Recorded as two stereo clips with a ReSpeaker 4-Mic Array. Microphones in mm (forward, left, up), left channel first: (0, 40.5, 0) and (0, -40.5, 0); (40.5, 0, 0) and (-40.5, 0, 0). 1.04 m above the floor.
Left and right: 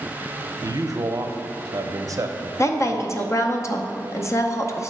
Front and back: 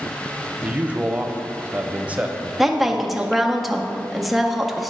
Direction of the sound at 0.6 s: 110° right.